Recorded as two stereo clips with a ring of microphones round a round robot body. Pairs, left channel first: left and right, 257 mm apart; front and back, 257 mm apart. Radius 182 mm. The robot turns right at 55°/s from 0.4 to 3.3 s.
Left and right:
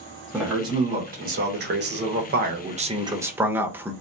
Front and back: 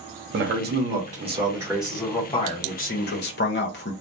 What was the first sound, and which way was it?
A man speaking, 170° right.